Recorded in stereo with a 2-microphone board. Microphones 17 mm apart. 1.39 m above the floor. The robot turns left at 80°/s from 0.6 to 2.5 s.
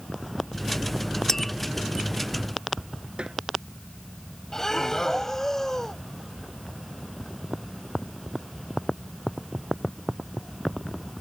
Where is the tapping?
25° left (ahead or behind); by 1.5 s 10° left (ahead or behind).